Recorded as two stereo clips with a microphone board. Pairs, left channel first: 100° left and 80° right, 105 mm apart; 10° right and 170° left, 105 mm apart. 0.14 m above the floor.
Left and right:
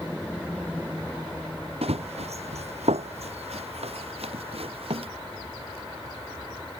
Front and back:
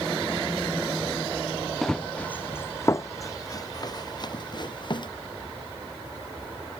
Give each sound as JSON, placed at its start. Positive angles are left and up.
{"t": 1.8, "sound": "running footsteps", "azimuth_deg": -95}